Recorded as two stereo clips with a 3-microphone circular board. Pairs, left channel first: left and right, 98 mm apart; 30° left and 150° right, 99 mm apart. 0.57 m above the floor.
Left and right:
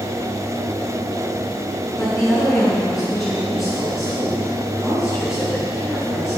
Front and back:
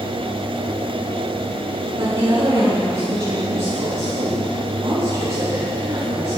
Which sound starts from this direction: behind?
A woman speaking, at 2.0 s.